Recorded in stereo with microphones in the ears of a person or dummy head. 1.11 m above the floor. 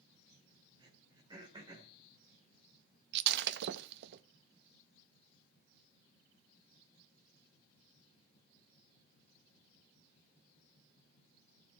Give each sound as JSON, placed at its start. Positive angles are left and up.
{"t": 0.8, "sound": "throat clearing", "side_deg": -25, "distance_m": 2.5}
{"t": 3.1, "sound": "breaking glass", "side_deg": -65, "distance_m": 0.6}